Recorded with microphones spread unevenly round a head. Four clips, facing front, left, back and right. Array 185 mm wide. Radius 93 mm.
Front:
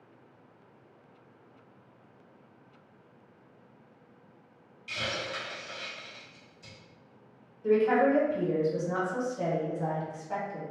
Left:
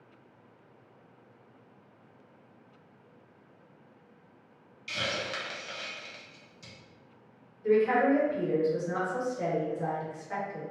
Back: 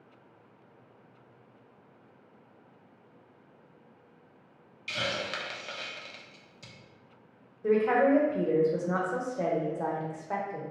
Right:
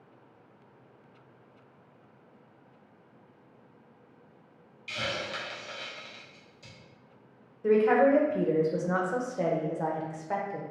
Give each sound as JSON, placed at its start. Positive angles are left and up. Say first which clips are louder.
{"t": 4.9, "sound": "a hiss", "louder": "even, back 2 dB", "azimuth_deg": 170, "distance_m": 0.7}
{"t": 7.6, "sound": "a woman speaking", "louder": "right 2 dB, even", "azimuth_deg": -120, "distance_m": 0.8}